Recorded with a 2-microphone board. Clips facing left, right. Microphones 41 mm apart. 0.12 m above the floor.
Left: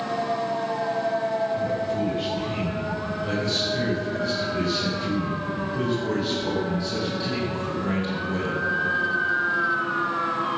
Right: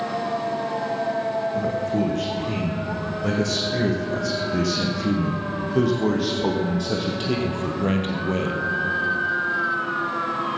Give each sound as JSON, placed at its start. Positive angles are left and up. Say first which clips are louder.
{"t": 1.5, "sound": "a man speaking", "louder": "right 2 dB", "side_deg": -75, "distance_m": 6.5}